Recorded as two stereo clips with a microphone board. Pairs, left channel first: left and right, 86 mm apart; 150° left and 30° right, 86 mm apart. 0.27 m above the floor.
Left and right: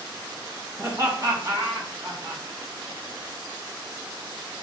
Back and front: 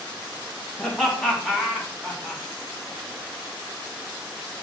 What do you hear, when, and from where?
0.8 s laughter: 130° right, 2.5 m; by 2.4 s 115° right, 3 m